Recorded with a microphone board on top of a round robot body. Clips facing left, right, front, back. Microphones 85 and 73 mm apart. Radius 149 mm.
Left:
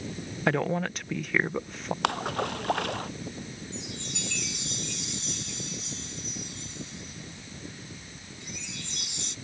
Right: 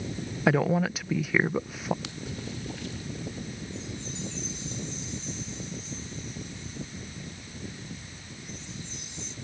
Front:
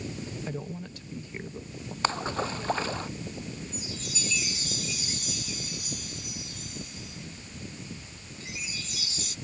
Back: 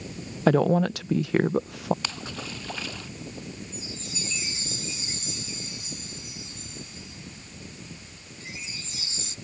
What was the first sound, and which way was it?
A woman speaking, 175° right.